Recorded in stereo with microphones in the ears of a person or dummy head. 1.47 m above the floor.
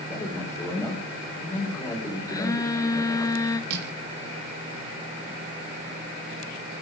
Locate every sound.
0.1 s a man speaking: 15° left (ahead or behind), 5.5 m
2.3 s a phone buzzing: 20° left (ahead or behind), 1.1 m
3.7 s crushing: 60° right (ahead or behind), 3.5 m